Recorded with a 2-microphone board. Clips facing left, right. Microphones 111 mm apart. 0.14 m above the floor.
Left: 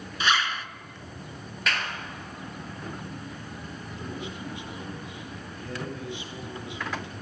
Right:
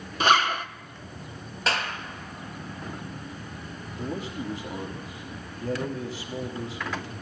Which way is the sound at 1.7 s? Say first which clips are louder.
Right 3 dB; 30° right (ahead or behind).